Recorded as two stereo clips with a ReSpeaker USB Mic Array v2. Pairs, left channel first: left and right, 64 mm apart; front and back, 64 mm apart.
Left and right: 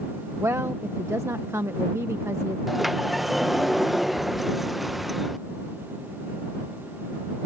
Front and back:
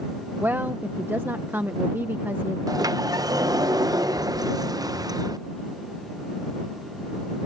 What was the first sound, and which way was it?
A woman speaking, 125° right.